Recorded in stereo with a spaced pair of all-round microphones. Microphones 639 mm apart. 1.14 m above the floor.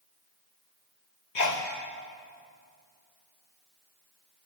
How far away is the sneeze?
About 1.3 m.